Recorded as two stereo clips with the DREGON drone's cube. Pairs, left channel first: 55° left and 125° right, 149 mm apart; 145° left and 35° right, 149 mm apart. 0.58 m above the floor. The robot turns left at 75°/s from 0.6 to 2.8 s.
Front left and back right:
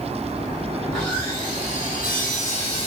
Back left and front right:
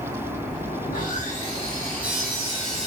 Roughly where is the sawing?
Behind left.